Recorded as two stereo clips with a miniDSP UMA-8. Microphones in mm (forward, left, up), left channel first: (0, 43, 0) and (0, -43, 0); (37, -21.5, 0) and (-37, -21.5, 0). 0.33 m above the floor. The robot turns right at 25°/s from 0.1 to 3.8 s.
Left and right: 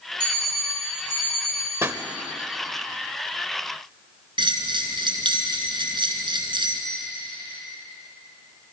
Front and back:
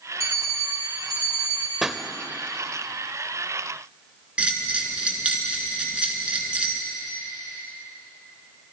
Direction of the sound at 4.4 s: 105° right.